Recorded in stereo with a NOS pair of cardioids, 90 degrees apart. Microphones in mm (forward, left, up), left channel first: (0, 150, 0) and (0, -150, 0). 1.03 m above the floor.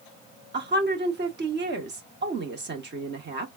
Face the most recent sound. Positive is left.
turn(degrees=-35)